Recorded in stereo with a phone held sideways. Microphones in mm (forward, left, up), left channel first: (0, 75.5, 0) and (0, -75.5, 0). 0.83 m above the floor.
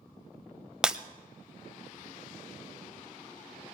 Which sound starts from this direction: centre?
Breaking glass, at 0.8 s.